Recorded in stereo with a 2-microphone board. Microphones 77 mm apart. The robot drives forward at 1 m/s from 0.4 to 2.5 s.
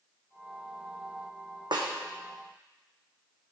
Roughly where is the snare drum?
Right.